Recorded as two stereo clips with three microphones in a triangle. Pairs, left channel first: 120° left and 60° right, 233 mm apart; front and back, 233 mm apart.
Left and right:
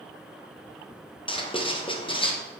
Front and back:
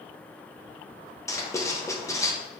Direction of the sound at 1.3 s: 65° left.